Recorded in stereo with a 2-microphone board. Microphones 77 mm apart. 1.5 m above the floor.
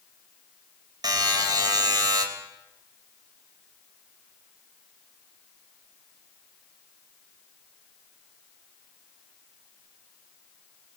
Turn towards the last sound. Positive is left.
turn(degrees=-65)  # may be behind; listen again after turning